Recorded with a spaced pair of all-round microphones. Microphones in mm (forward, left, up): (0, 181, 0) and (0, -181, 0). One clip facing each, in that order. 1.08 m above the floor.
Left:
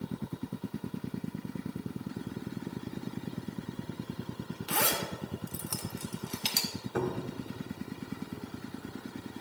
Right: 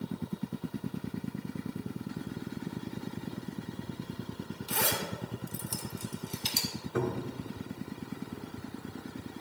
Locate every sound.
4.7 s a zipper: 75° left (ahead or behind), 1.1 m
7.0 s a cupboard door: 5° right (ahead or behind), 1.1 m